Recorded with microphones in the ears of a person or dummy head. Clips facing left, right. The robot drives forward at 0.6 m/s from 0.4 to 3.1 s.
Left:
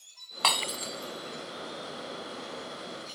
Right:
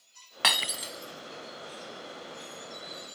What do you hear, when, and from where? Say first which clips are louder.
0.4 s breaking glass: left 2 dB; 20° right (ahead or behind); by 1.1 s 15° right (ahead or behind)